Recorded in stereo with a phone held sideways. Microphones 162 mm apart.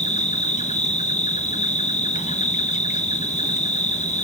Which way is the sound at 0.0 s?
45° left (ahead or behind).